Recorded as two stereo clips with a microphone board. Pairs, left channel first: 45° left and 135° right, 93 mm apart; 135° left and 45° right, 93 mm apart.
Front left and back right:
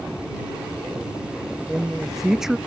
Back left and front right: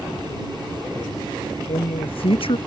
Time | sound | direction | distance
1.7 | a man speaking | 140° left | ?